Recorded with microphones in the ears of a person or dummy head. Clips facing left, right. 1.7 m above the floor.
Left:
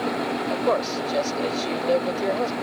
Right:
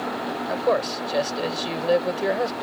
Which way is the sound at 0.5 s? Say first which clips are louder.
Right 2 dB; centre (ahead or behind).